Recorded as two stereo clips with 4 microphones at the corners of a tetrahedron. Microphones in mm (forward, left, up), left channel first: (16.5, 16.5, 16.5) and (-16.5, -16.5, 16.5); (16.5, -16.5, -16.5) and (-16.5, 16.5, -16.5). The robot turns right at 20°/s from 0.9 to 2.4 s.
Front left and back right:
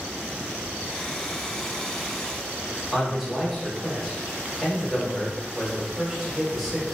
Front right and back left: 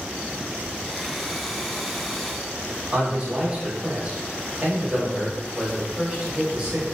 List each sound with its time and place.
2.9 s a man speaking: 145° left, 1.0 m